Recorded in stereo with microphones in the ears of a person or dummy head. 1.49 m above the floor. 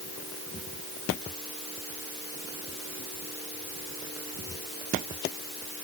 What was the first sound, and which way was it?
Only background noise.